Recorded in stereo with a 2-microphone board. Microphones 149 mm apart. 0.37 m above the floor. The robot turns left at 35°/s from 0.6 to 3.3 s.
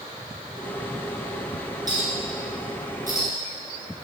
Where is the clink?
25° right (ahead or behind), 4 m; by 3.3 s 75° right (ahead or behind), 4 m.